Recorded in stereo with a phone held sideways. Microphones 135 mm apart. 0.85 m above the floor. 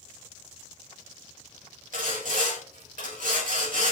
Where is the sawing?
85° right, 4 m.